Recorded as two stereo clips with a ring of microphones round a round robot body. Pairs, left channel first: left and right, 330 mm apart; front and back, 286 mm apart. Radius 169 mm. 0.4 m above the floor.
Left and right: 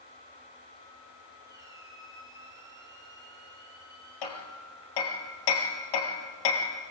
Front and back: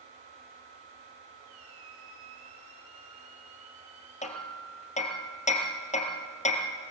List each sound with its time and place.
1.4 s a squeak: 170° right, 5.5 m
4.2 s hammering: 70° left, 3 m